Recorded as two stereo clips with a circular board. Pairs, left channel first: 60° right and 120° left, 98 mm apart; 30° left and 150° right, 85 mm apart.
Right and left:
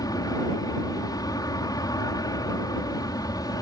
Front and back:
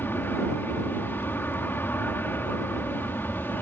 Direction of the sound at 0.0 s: 25° right.